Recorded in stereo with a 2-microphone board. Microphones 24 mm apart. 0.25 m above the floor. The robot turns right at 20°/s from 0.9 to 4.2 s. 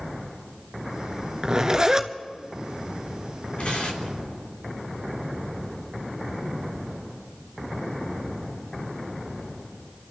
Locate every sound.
1.4 s a zipper: 35° right (ahead or behind), 1.0 m; by 2.1 s 25° right (ahead or behind), 1.0 m
3.6 s tearing paper: 65° left (ahead or behind), 2.5 m; by 4.2 s 55° left (ahead or behind), 2.5 m